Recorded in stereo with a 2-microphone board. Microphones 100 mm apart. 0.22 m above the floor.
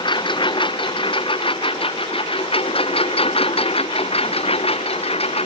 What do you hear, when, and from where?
0.0 s a lawn mower: 55° left (ahead or behind); by 5.5 s 90° left